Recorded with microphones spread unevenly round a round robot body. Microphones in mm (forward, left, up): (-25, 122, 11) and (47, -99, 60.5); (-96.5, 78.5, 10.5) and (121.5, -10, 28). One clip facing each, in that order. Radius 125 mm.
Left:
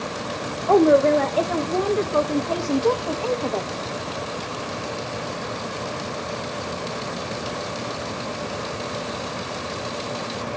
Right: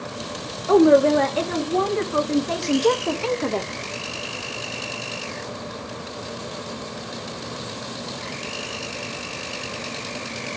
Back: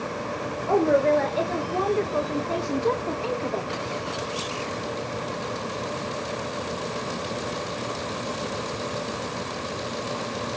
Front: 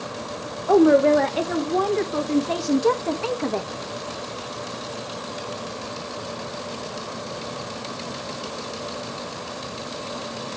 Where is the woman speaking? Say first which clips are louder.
Right 1 dB, front 6 dB; 10° right, 2.5 m.